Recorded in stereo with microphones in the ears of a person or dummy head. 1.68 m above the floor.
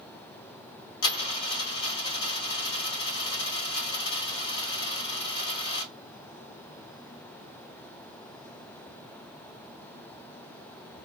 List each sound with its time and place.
1.0 s a dropped coin: 30° left (ahead or behind), 1.5 m